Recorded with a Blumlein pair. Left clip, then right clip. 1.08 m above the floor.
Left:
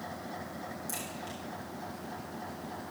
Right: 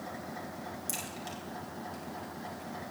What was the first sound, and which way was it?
A crack, 70° right.